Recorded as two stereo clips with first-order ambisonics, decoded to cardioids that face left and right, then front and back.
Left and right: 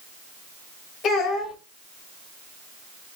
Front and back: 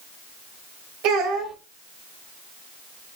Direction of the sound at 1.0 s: 150° left.